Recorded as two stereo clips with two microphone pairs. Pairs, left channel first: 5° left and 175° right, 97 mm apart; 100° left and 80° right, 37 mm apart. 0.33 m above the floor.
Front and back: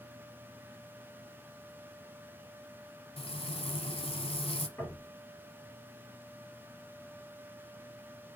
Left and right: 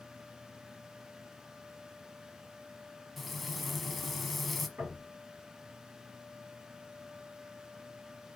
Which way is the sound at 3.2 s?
10° left.